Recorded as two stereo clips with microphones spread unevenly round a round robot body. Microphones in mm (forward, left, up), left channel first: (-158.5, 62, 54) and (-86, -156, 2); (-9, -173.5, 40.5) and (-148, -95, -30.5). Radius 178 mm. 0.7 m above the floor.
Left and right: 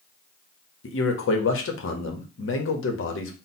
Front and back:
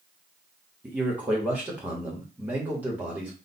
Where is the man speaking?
105° left, 0.9 m.